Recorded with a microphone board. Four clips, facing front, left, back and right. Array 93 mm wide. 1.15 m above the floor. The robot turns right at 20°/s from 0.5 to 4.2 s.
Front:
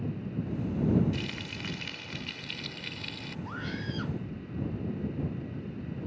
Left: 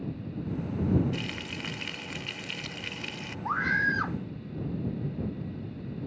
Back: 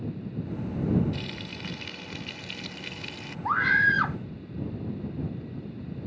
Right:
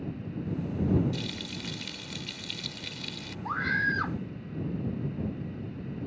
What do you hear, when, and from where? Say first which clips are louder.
1.1 s frying: left 1 dB, even; 75° left; by 3.4 s 115° left
3.5 s a scream: left 2 dB, back 17 dB; 165° left; by 4.2 s straight behind